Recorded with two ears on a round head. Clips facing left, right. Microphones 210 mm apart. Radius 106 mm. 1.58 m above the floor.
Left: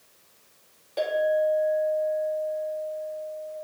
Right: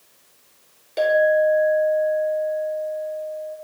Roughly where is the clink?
Right.